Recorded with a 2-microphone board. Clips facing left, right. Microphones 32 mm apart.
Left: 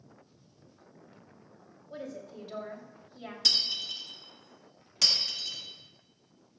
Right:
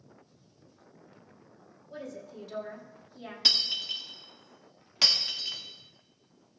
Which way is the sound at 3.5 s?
25° right (ahead or behind).